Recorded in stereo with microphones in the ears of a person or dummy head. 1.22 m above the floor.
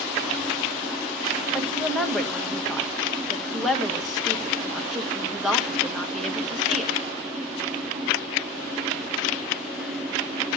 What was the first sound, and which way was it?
A woman speaking, 5° right (ahead or behind).